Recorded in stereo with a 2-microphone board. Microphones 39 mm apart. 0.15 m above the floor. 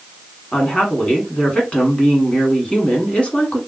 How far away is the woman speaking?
About 1.2 m.